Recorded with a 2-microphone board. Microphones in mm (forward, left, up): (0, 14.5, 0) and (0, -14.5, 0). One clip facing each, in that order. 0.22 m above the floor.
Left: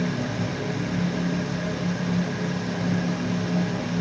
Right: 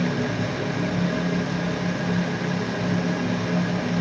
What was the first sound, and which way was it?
Only background noise.